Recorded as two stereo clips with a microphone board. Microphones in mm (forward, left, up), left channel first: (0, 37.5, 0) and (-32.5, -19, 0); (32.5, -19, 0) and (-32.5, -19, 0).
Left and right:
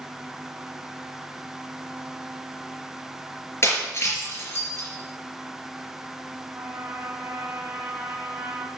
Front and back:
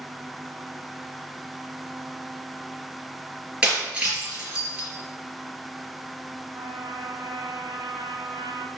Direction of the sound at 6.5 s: 170° right.